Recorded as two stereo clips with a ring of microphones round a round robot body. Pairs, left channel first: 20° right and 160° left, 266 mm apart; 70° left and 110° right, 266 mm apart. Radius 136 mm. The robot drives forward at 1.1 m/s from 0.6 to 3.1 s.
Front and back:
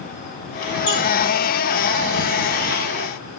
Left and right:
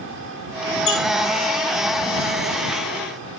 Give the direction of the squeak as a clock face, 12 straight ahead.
10 o'clock.